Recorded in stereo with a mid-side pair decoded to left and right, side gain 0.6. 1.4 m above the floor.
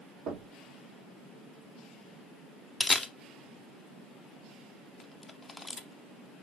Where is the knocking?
60° right, 1.7 m.